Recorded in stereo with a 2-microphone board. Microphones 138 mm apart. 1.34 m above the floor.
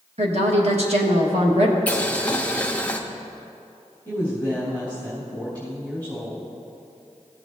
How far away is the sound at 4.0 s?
About 3 m.